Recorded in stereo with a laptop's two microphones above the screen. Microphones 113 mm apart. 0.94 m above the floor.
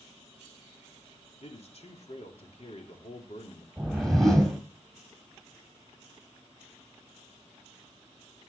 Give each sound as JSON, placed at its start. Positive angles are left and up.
{"t": 1.4, "sound": "a man speaking", "side_deg": 60, "distance_m": 2.5}
{"t": 3.8, "sound": "a whoosh", "side_deg": 0, "distance_m": 1.8}